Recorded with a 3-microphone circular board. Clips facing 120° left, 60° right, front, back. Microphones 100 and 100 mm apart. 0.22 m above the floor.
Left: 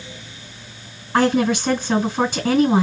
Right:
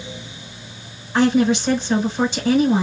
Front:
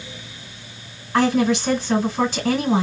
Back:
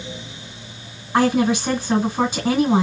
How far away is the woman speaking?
About 2 m.